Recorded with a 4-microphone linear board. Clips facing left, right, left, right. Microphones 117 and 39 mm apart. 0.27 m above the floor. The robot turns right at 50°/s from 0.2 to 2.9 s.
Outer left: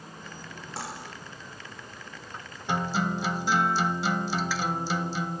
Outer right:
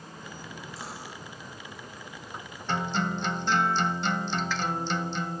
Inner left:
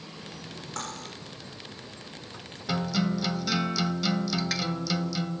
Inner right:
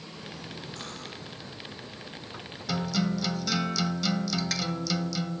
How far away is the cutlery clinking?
About 9 m.